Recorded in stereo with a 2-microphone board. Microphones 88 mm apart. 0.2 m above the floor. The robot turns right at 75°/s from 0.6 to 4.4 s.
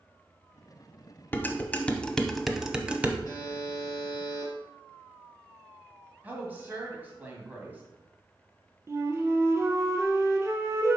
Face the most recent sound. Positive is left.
turn(degrees=-35)  # may be behind; listen again after turning